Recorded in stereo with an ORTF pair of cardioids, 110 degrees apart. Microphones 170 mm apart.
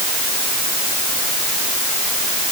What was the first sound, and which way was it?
Only background noise.